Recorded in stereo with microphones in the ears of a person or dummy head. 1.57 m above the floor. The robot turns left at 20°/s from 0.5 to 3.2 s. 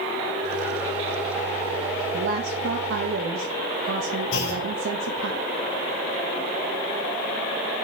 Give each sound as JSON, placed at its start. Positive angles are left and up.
{"t": 2.1, "sound": "a woman speaking", "side_deg": -70, "distance_m": 0.9}
{"t": 4.3, "sound": "a clunk", "side_deg": 75, "distance_m": 1.3}